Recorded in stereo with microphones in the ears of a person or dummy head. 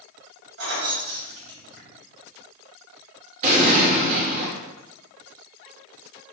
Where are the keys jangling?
65° right (ahead or behind), 1.6 m.